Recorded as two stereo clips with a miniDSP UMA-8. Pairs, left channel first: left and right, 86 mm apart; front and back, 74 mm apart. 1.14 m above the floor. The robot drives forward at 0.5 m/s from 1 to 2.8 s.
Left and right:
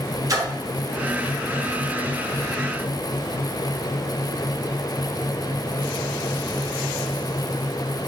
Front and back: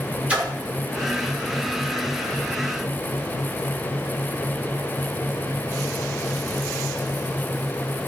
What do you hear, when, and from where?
0.3 s a splash: 110° right, 0.7 m